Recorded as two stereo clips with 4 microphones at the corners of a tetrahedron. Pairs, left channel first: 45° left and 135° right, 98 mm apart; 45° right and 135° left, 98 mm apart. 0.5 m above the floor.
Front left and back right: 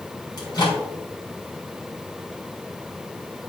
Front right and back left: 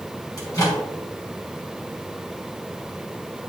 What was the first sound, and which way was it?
A microwave, 5° left.